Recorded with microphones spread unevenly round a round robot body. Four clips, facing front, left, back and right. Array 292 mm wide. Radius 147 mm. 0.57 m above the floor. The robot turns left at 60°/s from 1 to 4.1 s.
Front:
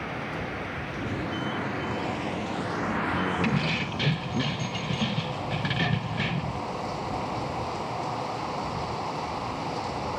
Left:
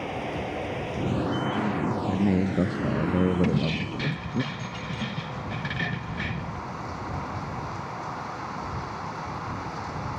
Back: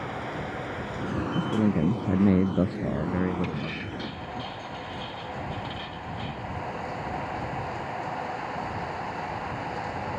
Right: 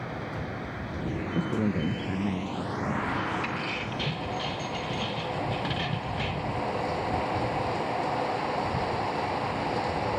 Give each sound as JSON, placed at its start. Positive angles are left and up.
{"t": 0.0, "sound": "running water", "azimuth_deg": 105}
{"t": 1.4, "sound": "a man speaking", "azimuth_deg": -140}
{"t": 3.4, "sound": "keys jangling", "azimuth_deg": 55}